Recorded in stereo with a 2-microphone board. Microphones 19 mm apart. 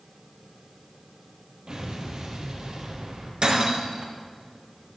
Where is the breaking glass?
55° right (ahead or behind), 3 m.